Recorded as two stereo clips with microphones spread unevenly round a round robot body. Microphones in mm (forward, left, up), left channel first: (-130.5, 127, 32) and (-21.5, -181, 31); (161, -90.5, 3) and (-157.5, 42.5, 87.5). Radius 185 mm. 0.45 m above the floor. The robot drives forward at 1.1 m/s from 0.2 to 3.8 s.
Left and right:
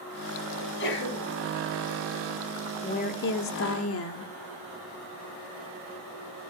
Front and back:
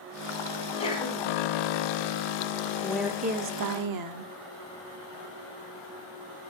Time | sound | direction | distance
0.6 | a sneeze | 45° left | 4 m
2.8 | a woman speaking | 45° left | 1.1 m